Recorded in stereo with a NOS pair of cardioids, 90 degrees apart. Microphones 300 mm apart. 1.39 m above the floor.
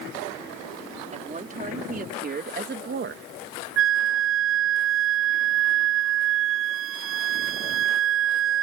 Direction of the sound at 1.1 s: 25° right.